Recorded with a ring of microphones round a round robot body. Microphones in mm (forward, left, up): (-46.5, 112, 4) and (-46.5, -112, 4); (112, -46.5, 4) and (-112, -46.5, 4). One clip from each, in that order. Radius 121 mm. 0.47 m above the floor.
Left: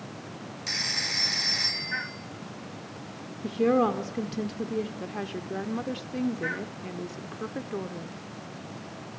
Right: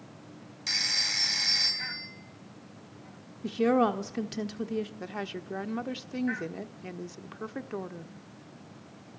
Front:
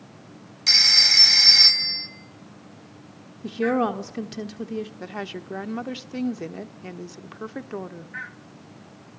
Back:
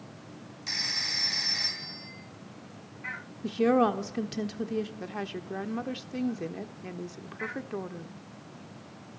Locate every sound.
0.7 s a phone ringing: 15° right, 1.9 m
3.4 s a woman speaking: 90° right, 1.1 m
5.0 s a woman speaking: 50° right, 0.9 m